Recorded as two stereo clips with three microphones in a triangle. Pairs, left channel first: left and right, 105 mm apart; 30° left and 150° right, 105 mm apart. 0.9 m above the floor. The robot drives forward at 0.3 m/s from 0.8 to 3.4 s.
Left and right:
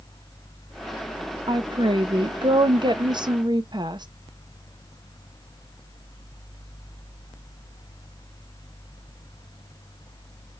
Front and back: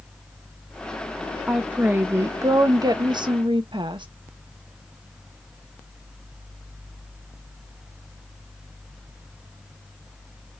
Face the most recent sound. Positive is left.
turn(degrees=-125)